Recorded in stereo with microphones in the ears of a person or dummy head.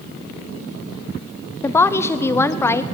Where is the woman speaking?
15° left (ahead or behind), 0.7 m.